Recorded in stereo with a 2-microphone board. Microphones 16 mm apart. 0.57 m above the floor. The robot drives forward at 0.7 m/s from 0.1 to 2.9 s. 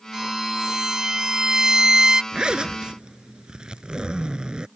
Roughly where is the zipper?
Right.